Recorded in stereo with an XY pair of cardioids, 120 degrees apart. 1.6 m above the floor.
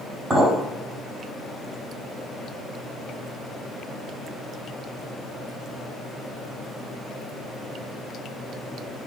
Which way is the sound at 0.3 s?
25° right.